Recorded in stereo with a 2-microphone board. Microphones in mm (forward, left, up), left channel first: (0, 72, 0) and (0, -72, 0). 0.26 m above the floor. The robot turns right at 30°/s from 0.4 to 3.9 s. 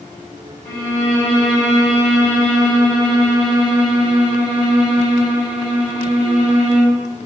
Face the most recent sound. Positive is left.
turn(degrees=-155)